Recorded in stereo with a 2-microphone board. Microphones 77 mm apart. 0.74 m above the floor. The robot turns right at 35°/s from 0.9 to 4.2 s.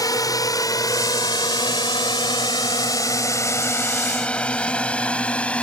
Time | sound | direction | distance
0.0 | a drone | 50° left (ahead or behind) | ?